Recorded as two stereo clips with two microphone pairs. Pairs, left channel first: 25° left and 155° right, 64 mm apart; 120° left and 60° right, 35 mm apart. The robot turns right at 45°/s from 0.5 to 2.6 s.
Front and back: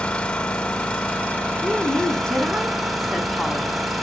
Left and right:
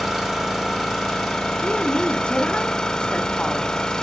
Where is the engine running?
15° left, 1.3 m; by 4.0 s 110° left, 1.3 m.